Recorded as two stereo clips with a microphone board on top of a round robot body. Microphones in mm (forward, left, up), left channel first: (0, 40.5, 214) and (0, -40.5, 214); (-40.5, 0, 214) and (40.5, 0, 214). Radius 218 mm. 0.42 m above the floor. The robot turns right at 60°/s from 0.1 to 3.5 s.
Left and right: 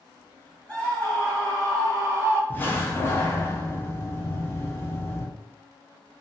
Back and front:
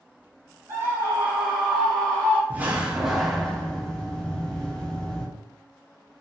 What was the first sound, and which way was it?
A scream, 25° left.